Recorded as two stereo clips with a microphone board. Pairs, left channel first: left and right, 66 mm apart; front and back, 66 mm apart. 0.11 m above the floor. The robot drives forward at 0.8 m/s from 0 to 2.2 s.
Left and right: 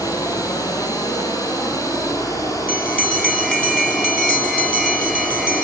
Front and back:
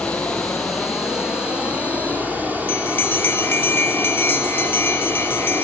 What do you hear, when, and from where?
0.0 s running water: 75° left, 3 m; by 5.6 s 115° left, 3 m
2.7 s a bell: 30° left, 1.7 m